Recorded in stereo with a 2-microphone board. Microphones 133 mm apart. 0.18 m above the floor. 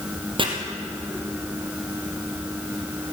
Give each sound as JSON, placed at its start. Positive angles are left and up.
{"t": 0.4, "sound": "chopping", "side_deg": -40, "distance_m": 3.0}